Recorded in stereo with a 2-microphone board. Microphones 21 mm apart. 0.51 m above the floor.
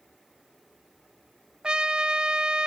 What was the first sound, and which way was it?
A trumpet, 45° right (ahead or behind).